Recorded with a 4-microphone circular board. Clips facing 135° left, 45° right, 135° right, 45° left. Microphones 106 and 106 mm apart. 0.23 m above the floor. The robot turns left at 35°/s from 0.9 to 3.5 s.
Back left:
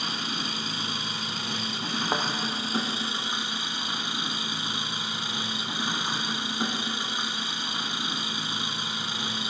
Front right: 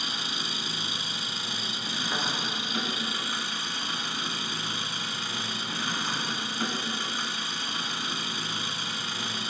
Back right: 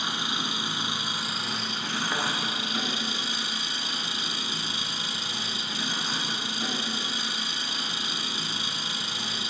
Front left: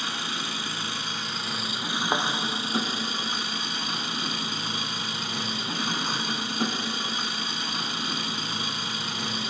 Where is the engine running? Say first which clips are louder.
Back left 3 dB, back right 1 dB; 155° left, 1.2 m; by 9.5 s 65° left, 1.2 m.